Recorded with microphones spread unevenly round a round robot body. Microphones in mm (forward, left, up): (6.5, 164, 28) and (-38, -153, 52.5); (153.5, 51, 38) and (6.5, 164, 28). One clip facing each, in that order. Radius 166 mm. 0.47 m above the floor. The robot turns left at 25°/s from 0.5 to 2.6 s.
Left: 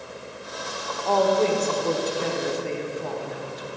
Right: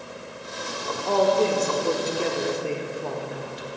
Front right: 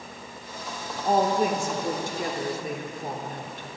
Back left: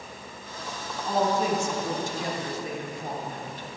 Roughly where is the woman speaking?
Ahead.